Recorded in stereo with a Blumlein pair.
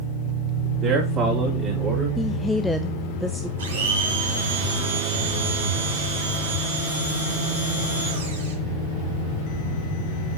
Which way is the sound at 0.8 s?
25° right.